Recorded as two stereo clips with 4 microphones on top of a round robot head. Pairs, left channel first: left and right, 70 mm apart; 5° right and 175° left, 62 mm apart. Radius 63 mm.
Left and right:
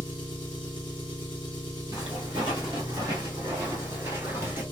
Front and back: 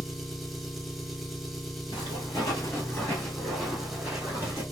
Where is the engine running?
85° left, 1.0 m.